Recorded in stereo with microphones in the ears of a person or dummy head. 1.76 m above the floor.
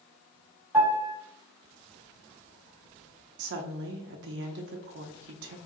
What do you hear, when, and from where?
0.7 s a piano: 5° right (ahead or behind), 1.8 m
3.4 s a woman speaking: 60° right (ahead or behind), 0.7 m